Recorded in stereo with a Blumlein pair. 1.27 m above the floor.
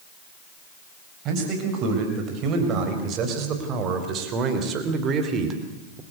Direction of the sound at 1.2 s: 35° right.